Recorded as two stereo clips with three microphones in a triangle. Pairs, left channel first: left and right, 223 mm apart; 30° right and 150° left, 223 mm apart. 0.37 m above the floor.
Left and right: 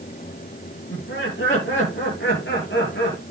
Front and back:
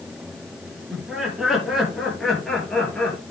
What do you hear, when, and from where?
0.9 s laughter: 65° left, 8 m; by 3.2 s 55° left, 7 m